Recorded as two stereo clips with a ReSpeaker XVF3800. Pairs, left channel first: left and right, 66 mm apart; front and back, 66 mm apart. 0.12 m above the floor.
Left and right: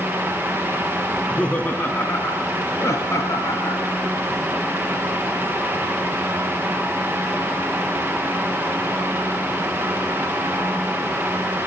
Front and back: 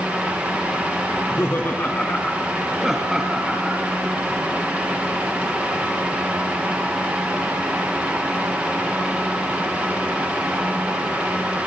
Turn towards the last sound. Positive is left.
turn(degrees=115)